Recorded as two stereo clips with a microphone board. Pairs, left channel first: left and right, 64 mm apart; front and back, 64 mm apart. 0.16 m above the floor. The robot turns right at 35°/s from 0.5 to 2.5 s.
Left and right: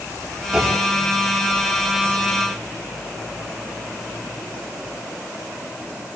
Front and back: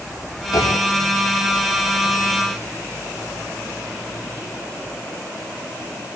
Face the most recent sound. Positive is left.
turn(degrees=45)